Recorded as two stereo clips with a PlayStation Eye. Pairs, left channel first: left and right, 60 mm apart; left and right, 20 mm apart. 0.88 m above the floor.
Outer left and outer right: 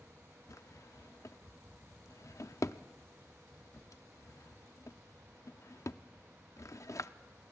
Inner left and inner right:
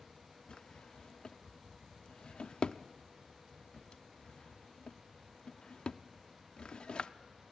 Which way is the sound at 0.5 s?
55° left (ahead or behind).